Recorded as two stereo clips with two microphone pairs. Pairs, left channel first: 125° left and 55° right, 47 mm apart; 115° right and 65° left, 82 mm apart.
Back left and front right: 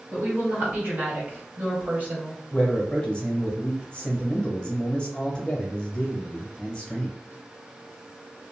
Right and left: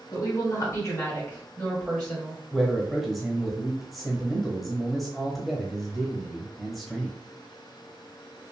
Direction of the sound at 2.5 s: 150° left.